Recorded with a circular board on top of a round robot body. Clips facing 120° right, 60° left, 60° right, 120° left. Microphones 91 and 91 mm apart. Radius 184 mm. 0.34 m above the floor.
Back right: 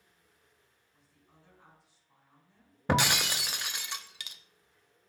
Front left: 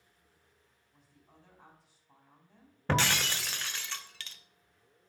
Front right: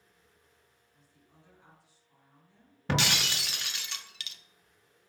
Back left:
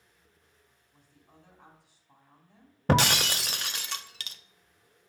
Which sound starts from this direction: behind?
Breaking glass, at 2.9 s.